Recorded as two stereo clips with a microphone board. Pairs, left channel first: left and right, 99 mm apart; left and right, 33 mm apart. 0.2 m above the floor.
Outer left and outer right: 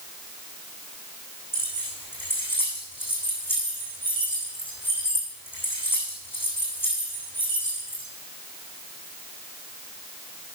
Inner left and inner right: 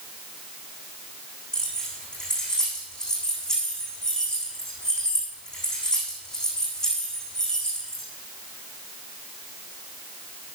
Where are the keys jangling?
20° left (ahead or behind), 7 m.